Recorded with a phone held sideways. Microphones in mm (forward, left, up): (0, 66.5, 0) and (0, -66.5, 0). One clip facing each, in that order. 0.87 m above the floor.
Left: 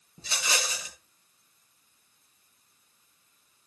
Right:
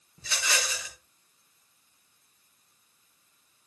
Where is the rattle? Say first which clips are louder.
Even; 25° left (ahead or behind), 4.5 m.